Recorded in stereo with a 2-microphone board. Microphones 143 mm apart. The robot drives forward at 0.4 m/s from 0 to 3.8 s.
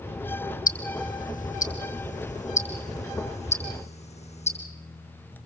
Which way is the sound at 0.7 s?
75° left (ahead or behind).